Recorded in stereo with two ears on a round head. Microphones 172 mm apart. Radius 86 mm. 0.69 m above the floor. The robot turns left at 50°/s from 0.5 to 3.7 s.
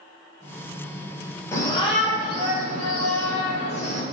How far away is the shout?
About 2.5 m.